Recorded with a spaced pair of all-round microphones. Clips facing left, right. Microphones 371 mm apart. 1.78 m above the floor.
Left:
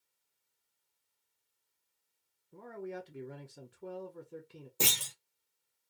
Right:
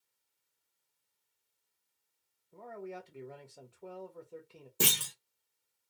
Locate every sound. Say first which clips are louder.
2.5 s a man speaking: left 2 dB; 25° left (ahead or behind), 0.6 m
4.8 s a clunk: right 3 dB; 25° right (ahead or behind), 0.6 m